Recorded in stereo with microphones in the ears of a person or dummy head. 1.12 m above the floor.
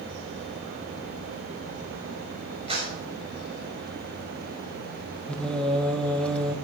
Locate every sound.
2.7 s a clap: 25° right (ahead or behind), 5.5 m
5.3 s singing: 5° left (ahead or behind), 0.8 m